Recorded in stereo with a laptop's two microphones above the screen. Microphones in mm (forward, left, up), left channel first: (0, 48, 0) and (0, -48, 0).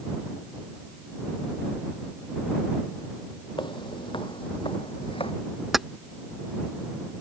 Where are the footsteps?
55° left (ahead or behind); by 5.3 s 70° left (ahead or behind).